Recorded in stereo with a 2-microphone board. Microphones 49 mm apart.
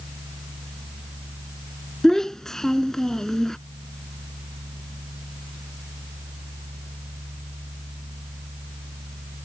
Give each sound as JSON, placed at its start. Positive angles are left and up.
{"t": 2.0, "sound": "a child speaking", "side_deg": 10}